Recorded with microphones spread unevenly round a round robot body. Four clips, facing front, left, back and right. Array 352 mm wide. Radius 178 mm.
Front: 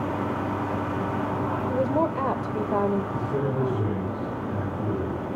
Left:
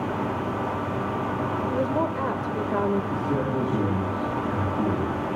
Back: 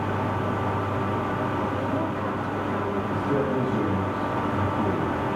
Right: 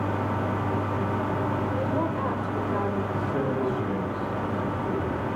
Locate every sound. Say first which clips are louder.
1.7 s a woman speaking: left 2 dB, front 3 dB; 35° left, 1.4 m
3.1 s a man speaking: left 1 dB, back 3 dB; 125° left, 6.5 m